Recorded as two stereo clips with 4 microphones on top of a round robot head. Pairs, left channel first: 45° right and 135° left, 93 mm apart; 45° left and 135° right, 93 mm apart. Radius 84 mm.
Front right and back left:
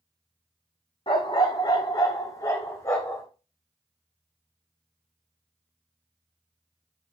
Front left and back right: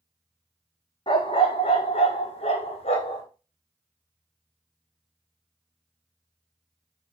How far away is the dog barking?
About 1.0 m.